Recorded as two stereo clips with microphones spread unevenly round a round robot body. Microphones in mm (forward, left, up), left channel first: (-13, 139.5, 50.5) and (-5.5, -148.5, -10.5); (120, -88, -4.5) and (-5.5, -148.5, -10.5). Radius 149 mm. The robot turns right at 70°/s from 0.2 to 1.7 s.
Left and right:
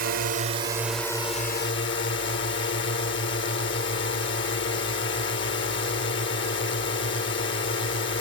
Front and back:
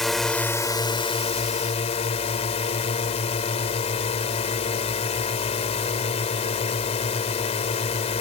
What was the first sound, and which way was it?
A drone, 60° right.